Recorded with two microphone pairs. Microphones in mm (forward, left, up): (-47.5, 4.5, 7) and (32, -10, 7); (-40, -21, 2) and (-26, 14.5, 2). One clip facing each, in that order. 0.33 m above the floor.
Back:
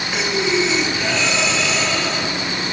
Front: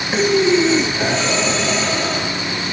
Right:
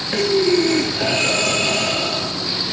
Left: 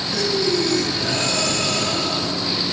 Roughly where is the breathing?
Ahead right.